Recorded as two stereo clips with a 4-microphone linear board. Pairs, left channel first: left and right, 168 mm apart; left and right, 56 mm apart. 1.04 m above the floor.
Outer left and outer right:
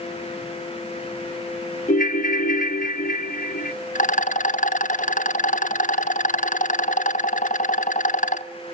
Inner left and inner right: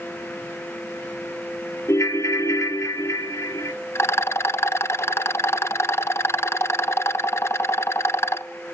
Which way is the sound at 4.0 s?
50° left (ahead or behind).